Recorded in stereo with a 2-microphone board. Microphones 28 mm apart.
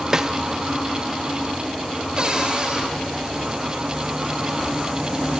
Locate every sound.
0.1 s a snare drum: 20° right (ahead or behind), 0.6 m
2.2 s a cupboard door: 30° right (ahead or behind), 3 m